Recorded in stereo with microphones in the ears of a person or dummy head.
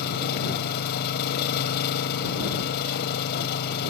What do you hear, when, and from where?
0.0 s an engine running: 55° left (ahead or behind)